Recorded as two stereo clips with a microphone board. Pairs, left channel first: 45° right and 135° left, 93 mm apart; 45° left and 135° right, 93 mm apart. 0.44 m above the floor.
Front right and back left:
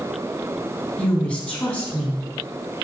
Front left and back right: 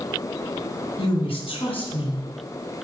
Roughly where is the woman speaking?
Ahead left.